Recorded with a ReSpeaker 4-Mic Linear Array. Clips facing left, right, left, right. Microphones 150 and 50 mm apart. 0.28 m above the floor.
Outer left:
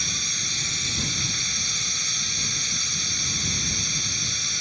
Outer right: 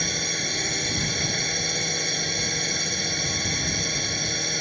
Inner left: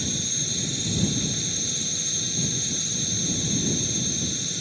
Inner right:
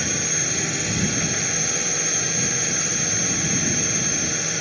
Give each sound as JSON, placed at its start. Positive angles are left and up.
{"t": 0.0, "sound": "a drone", "side_deg": -65}